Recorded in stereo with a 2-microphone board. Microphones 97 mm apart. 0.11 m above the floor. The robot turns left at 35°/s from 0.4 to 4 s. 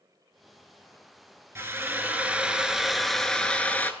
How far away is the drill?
About 0.5 m.